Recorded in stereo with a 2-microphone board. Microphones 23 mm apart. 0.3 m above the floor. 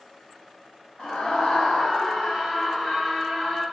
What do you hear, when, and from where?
1.0 s a scream: 50° left (ahead or behind), 2 m; by 3.6 s 10° left (ahead or behind), 3 m